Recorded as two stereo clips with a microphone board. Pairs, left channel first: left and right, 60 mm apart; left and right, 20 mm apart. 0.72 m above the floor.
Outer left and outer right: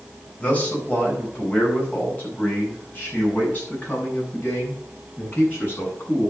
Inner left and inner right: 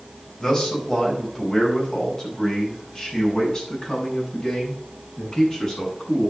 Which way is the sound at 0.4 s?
25° left (ahead or behind).